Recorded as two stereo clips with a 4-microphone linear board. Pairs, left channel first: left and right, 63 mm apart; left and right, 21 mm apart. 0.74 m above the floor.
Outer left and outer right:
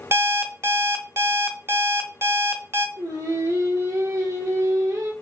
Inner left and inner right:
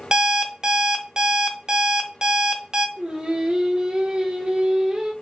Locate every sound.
0.1 s an alarm clock: 45° right (ahead or behind), 0.6 m
3.0 s singing: 70° right (ahead or behind), 2.5 m